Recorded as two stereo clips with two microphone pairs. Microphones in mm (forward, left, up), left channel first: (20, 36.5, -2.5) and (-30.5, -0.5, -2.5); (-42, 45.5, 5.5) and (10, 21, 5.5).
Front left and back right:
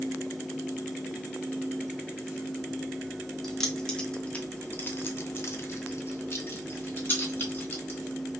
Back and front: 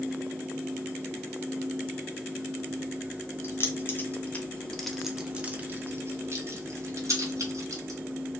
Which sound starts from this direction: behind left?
Keys jangling, at 3.4 s.